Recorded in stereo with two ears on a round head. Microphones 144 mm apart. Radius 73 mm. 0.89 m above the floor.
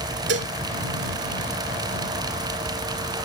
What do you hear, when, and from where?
0.3 s dishes clattering: 85° right